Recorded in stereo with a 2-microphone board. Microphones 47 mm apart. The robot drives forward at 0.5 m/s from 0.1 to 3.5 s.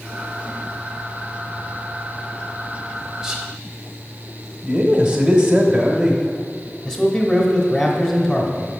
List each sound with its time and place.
3.2 s whispering: 10° right (ahead or behind), 1.1 m
4.6 s a man speaking: 15° right (ahead or behind), 0.9 m
6.8 s a man speaking: 15° left (ahead or behind), 1.0 m